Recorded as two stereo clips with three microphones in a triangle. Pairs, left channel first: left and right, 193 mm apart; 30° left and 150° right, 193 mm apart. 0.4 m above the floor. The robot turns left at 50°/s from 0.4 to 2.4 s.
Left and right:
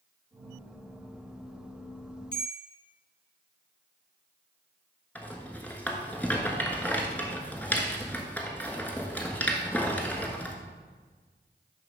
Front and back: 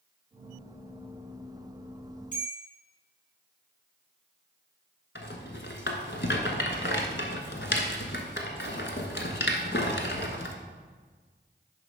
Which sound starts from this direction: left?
A bell, at 2.3 s.